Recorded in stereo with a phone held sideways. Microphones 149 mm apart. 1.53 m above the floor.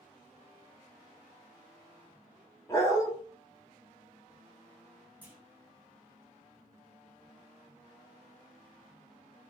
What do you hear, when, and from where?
2.7 s a dog barking: 20° left (ahead or behind), 1.0 m
5.2 s a clunk: 10° right (ahead or behind), 1.0 m